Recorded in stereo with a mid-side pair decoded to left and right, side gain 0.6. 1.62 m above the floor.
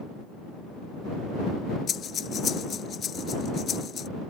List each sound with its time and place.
1.9 s breathing: 45° left